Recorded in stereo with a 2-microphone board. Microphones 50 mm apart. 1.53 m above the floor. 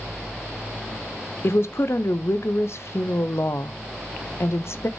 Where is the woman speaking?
60° left (ahead or behind), 0.6 m.